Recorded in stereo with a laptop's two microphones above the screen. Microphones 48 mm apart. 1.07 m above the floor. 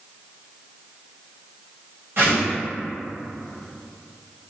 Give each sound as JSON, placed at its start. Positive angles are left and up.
{"t": 2.2, "sound": "a whoosh", "side_deg": -50, "distance_m": 1.3}